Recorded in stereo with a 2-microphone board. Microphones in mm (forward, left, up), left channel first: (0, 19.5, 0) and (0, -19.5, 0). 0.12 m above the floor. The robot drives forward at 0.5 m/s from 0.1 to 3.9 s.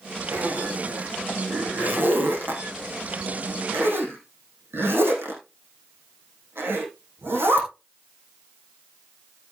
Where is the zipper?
55° right (ahead or behind), 5.5 m; by 7.7 s 70° right (ahead or behind), 5 m.